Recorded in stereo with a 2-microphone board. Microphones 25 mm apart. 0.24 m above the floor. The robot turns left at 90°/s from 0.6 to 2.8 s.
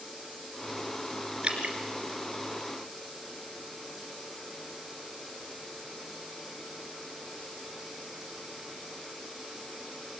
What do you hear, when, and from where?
1.4 s dripping: 40° right (ahead or behind), 3.5 m; by 1.8 s 65° right (ahead or behind), 3.5 m